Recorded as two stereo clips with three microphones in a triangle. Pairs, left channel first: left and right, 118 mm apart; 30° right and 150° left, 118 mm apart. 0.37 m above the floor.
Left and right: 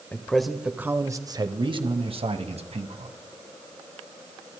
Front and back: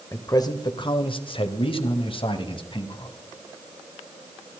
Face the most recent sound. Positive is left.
turn(degrees=-70)